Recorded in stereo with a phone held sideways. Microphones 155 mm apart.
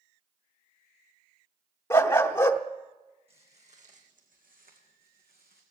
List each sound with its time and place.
1.9 s a dog barking: 15° left (ahead or behind), 0.7 m
3.3 s footsteps: 40° right (ahead or behind), 3 m; by 5.6 s 75° right (ahead or behind), 3.5 m